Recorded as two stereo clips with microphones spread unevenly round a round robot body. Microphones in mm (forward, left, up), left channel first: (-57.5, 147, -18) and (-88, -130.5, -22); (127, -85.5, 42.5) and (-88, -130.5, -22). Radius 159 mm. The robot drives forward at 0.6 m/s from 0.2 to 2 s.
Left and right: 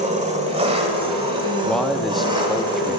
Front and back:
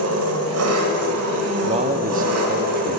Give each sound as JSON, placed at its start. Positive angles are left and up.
{"t": 0.0, "sound": "an engine running", "azimuth_deg": -165, "distance_m": 1.3}
{"t": 1.6, "sound": "a man speaking", "azimuth_deg": 170, "distance_m": 0.5}